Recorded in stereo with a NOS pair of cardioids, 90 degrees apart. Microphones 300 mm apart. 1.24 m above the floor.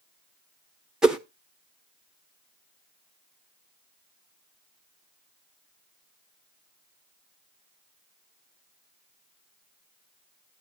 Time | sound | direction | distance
1.0 | a whoosh | straight ahead | 1.0 m